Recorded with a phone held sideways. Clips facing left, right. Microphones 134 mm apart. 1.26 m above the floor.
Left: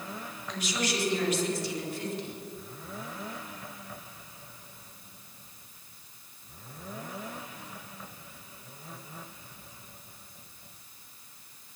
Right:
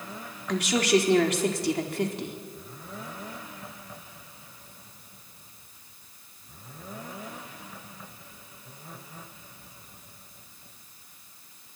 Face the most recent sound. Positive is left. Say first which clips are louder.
# right 10 dB
turn(degrees=-80)